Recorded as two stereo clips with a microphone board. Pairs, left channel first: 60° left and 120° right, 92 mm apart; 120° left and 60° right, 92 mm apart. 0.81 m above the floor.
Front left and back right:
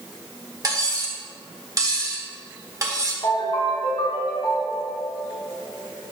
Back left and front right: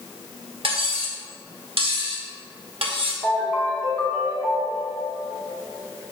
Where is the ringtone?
35° left, 2.5 m.